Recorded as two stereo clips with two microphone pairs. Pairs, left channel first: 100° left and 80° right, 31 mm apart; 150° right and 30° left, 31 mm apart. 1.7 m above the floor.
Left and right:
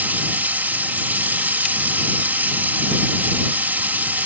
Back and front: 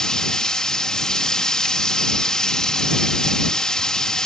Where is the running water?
80° right.